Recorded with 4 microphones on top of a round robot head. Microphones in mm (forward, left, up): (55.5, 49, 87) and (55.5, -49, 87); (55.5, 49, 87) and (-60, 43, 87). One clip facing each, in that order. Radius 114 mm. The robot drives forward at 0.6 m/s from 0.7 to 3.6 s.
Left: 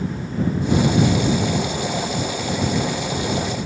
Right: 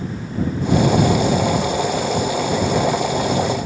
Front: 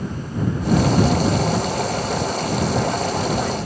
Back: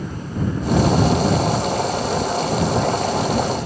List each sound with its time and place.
Only background noise.